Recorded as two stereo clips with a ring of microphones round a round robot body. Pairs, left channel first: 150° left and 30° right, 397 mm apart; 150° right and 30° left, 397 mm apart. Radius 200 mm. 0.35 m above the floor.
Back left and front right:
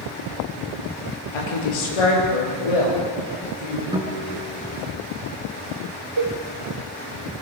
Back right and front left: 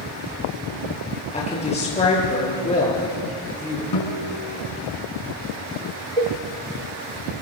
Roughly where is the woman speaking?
Behind left.